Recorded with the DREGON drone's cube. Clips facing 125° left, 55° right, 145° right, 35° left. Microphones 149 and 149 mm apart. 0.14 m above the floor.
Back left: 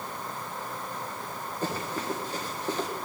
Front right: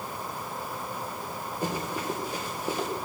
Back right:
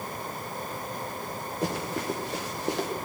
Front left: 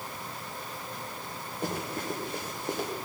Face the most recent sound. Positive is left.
turn(degrees=-135)